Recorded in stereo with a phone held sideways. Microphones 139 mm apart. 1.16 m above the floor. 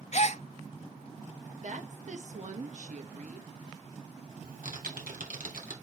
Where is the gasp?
55° left (ahead or behind), 0.6 m.